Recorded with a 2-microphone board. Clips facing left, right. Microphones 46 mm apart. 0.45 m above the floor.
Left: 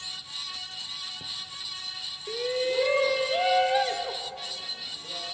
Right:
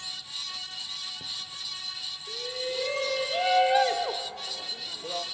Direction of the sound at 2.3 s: 45° left (ahead or behind).